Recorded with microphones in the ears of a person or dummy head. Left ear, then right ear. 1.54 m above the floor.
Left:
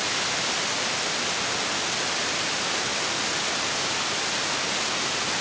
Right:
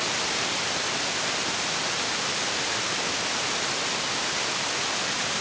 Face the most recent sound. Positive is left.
No sound to turn to.